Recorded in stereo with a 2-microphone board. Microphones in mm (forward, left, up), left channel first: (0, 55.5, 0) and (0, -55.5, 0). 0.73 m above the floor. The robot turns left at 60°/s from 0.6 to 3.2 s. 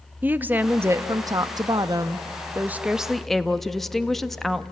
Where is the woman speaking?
30° right, 0.6 m; by 4.6 s 175° left, 0.6 m.